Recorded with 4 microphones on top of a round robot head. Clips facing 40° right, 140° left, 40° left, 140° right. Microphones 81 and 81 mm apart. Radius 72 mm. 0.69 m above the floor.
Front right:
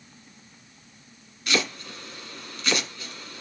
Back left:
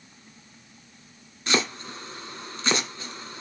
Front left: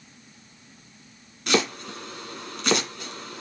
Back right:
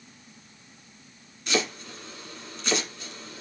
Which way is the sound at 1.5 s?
75° left.